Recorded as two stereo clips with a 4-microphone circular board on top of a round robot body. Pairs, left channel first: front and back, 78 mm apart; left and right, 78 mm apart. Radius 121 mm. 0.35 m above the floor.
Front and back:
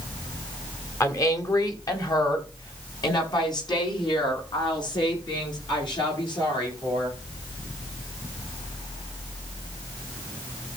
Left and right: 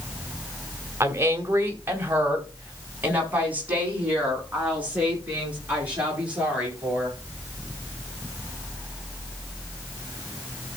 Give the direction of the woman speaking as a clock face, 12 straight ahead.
1 o'clock.